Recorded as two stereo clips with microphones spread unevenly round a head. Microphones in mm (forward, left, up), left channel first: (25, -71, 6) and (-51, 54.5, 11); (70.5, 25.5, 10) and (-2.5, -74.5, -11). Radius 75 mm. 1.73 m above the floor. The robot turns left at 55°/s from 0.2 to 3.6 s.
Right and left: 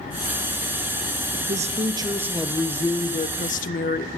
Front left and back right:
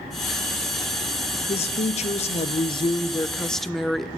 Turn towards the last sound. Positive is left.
turn(degrees=-30)